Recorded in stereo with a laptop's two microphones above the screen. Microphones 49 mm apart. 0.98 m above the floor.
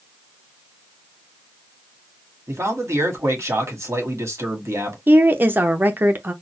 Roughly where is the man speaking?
Right.